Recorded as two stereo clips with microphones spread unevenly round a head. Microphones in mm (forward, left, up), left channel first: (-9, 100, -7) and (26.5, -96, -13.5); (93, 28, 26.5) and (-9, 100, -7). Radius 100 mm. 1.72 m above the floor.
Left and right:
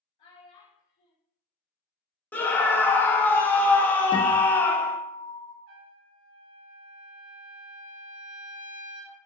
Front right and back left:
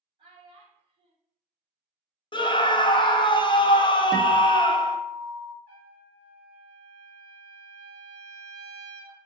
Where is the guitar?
40° left, 0.7 m.